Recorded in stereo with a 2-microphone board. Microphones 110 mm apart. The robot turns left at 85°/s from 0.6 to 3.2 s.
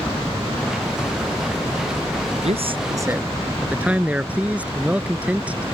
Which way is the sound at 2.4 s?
105° right.